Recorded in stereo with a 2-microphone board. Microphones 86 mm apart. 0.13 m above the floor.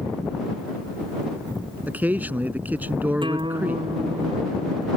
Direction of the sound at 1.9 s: 20° right (ahead or behind).